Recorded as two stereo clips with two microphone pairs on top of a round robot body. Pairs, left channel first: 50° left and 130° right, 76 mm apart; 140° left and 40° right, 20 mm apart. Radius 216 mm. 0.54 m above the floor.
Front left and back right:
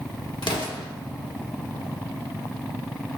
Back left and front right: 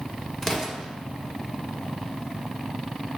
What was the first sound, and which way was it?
An explosion, 55° left.